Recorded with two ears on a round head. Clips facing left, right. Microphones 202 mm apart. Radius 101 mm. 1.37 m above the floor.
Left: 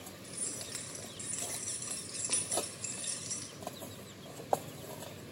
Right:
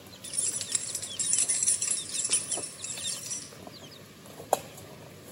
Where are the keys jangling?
40° right (ahead or behind), 1.5 m; by 3.5 s centre (ahead or behind), 2 m.